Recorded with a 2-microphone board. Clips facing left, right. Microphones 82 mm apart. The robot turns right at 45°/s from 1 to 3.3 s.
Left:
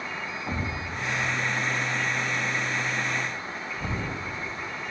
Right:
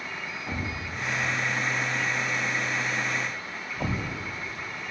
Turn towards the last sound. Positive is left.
turn(degrees=-80)